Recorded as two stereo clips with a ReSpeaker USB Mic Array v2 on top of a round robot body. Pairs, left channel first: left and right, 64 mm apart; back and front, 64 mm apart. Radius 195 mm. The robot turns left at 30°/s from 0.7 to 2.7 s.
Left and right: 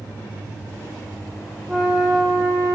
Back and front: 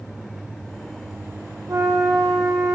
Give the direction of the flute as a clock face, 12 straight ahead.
12 o'clock.